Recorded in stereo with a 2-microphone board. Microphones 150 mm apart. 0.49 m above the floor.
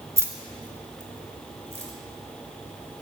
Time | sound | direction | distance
0.2 | keys jangling | 20° right (ahead or behind) | 0.9 m